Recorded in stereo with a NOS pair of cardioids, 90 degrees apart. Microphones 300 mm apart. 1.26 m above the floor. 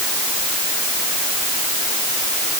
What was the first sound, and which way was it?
Only background noise.